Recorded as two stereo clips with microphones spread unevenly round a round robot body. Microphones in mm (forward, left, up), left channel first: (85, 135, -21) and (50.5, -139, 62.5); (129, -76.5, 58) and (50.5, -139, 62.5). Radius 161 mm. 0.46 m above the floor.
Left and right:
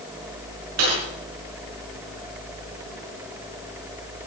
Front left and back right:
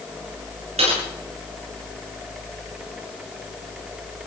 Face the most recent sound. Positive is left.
turn(degrees=-145)